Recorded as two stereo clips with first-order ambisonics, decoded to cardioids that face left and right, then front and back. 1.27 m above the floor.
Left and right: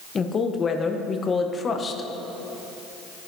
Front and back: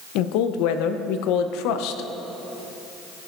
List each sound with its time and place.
0.1 s a woman speaking: 20° left, 0.8 m